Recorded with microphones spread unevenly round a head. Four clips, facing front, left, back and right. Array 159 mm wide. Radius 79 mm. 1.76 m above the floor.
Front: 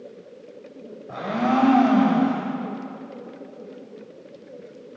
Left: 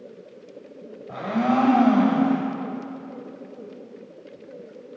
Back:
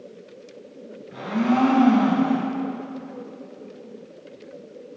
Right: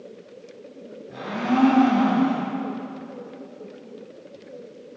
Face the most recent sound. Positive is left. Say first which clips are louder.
# left 2 dB, even
turn(degrees=40)